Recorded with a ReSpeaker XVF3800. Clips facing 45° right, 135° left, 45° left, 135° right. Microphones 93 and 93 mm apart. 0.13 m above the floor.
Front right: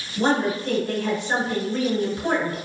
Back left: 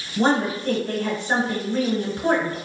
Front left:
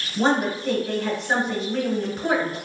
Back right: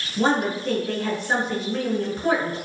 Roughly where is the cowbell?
No cowbell in this recording.